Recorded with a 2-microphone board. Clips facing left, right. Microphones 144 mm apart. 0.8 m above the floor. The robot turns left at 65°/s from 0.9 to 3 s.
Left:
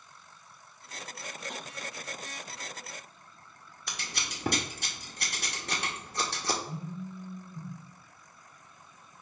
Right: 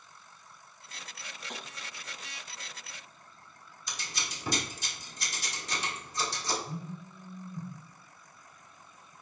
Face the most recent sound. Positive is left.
turn(degrees=-10)  # may be behind; listen again after turning